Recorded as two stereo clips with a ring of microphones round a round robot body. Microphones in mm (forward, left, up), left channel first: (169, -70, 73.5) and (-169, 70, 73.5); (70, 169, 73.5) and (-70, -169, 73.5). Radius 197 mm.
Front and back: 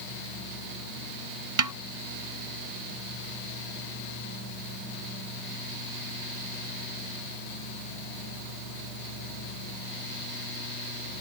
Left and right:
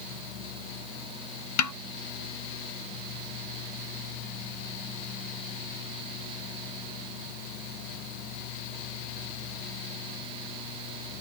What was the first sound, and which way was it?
A snare drum, 115° left.